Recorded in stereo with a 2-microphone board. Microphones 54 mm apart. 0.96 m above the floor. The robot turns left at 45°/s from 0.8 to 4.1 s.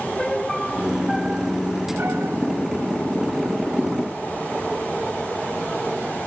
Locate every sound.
0.2 s a piano: 10° left; by 2.4 s 65° right